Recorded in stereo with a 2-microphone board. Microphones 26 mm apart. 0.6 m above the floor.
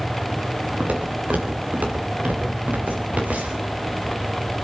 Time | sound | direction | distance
0.8 | footsteps | 85° right | 6 m